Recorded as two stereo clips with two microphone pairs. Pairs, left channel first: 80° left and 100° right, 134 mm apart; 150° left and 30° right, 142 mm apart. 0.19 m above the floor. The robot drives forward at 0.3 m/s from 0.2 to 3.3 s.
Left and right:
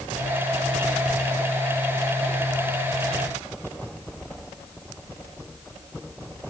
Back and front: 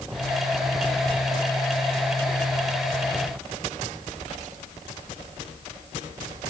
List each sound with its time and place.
Only background noise.